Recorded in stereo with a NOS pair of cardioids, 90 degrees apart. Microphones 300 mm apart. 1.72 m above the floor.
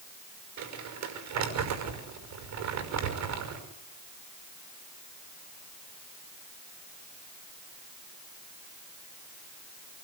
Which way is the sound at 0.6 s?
65° right.